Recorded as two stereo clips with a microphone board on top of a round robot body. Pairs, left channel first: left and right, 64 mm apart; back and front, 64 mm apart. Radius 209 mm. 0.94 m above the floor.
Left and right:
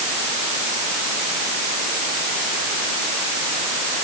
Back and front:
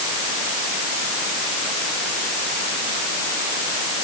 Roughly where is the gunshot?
I don't hear a gunshot.